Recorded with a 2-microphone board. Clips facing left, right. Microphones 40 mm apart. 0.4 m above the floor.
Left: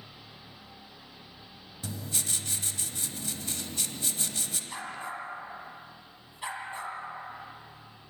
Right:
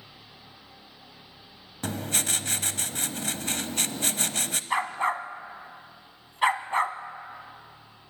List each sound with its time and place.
1.8 s writing: 70° right (ahead or behind), 0.7 m
4.7 s a dog barking: 80° right, 1.0 m